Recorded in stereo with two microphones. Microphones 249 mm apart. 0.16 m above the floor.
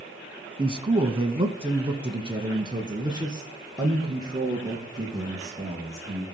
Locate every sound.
0.6 s a man speaking: 20° right (ahead or behind), 1.0 m; by 6.2 s 15° right (ahead or behind), 3.5 m